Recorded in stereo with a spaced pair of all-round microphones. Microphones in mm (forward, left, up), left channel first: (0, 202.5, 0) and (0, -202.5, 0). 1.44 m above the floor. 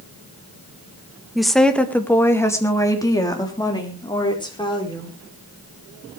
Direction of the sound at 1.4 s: Centre (ahead or behind).